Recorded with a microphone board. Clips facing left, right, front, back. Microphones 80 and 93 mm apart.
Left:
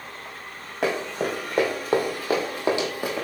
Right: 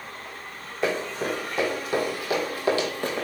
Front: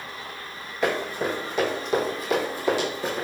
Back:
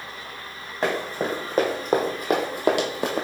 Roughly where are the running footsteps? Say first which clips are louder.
Left 1 dB, even; behind left.